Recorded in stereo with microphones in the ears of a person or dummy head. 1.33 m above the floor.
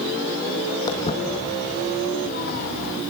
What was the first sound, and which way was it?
Footsteps, 25° left (ahead or behind).